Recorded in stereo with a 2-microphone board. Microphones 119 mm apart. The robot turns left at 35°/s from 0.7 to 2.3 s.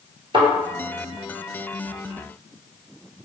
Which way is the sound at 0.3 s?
50° right (ahead or behind).